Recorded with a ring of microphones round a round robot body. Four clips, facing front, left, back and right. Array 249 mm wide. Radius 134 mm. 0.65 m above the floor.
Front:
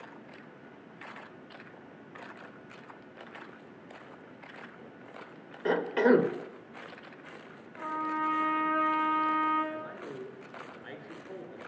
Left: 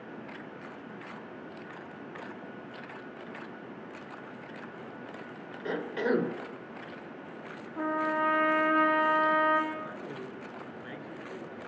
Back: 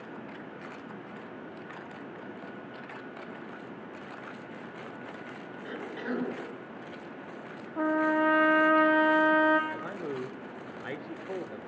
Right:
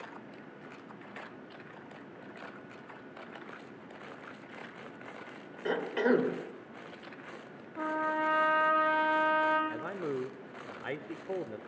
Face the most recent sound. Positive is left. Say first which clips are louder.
# right 3 dB, back 4 dB
turn(degrees=-120)